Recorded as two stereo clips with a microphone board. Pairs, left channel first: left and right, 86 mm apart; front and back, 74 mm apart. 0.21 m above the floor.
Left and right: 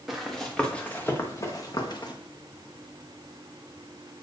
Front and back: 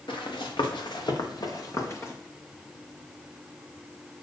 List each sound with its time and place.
0.1 s running footsteps: straight ahead, 1.9 m; by 2.1 s 55° left, 1.8 m